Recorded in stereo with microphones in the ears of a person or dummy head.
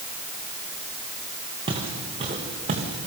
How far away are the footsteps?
About 3.5 m.